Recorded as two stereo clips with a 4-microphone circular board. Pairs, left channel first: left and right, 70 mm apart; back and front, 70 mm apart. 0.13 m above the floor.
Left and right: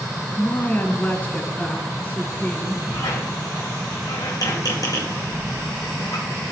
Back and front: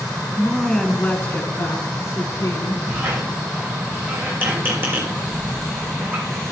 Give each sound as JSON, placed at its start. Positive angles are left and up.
{"t": 0.4, "sound": "a woman speaking", "azimuth_deg": 80, "distance_m": 1.1}
{"t": 2.9, "sound": "a squeak", "azimuth_deg": 60, "distance_m": 3.0}